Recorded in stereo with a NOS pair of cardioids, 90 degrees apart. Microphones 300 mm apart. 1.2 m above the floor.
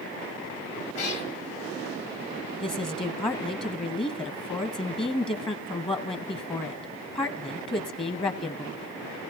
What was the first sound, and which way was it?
A cat meowing, 50° left.